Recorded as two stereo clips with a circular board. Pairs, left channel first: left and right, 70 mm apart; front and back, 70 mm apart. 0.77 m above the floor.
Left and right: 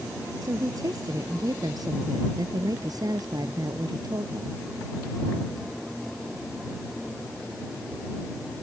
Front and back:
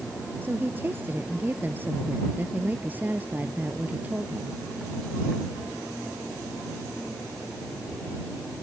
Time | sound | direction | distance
0.4 | a woman speaking | 120° right | ?